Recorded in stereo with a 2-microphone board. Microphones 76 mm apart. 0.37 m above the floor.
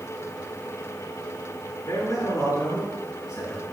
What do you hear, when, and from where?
1.9 s a man speaking: 60° left (ahead or behind), 7 m; by 3.6 s 55° left (ahead or behind), 4.5 m